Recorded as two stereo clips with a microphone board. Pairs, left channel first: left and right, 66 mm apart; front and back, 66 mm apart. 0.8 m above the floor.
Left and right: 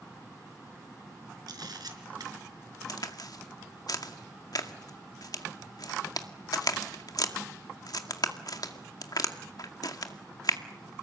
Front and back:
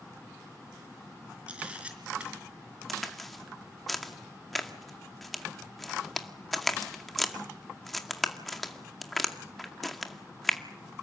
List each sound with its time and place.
1.5 s a camera shutter: 105° right, 4 m
2.9 s a crack: 90° left, 2 m